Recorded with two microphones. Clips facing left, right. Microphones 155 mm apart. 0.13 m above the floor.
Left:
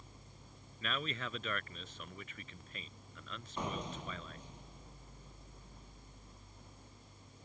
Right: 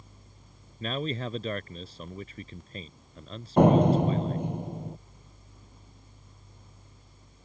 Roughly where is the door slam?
Right.